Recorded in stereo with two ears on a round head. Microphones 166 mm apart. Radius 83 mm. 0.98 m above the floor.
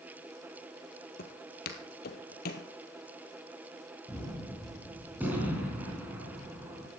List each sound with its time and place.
1.2 s footsteps: 55° left (ahead or behind), 1.6 m; by 2.7 s 50° left (ahead or behind), 1.7 m
4.1 s a gunshot: 10° right (ahead or behind), 3.5 m